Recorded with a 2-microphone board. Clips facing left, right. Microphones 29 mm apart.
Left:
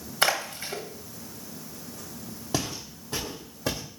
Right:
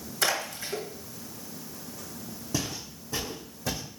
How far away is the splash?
About 1.1 m.